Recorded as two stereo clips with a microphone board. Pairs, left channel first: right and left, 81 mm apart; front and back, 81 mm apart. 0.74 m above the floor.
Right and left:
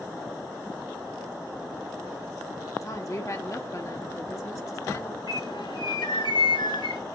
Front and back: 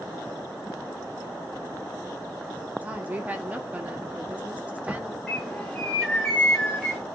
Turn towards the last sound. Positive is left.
turn(degrees=-85)